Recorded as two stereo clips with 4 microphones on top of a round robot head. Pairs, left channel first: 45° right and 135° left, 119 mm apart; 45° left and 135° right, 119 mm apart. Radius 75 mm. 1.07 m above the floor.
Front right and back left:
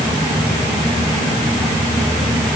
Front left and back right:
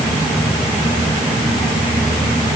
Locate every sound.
Only background noise.